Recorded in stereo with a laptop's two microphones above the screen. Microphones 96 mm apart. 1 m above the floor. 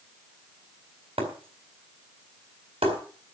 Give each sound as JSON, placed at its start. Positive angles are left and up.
{"t": 1.2, "sound": "breaking glass", "side_deg": -80, "distance_m": 4.0}